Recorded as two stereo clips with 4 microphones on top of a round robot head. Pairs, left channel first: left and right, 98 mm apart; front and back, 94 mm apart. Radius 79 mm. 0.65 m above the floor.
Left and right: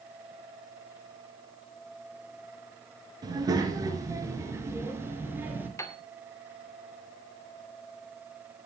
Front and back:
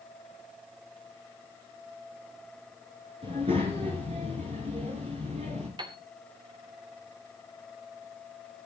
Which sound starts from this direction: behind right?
A child speaking, at 3.2 s.